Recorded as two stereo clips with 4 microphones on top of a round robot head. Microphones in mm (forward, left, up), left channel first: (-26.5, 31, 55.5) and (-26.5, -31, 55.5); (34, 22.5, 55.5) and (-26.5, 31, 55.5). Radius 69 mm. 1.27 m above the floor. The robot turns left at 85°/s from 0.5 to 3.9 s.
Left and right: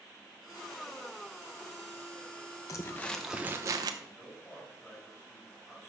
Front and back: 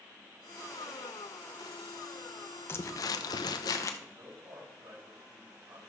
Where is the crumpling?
45° left, 0.8 m; by 3.9 s 60° right, 0.8 m.